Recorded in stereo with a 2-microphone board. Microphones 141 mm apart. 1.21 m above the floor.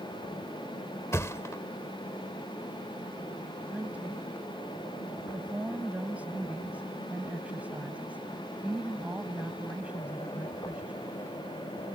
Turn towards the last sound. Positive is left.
turn(degrees=-10)  # may be behind; listen again after turning